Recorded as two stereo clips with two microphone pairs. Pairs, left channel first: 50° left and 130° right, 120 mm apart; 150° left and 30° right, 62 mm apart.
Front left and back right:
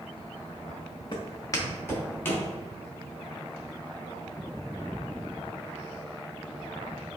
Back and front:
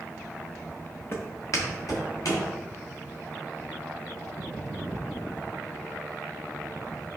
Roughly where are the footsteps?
Left.